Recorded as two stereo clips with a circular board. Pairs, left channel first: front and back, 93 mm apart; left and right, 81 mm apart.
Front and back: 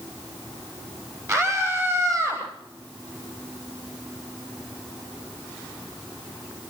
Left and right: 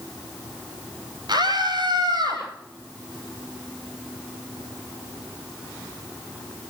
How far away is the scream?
About 10 m.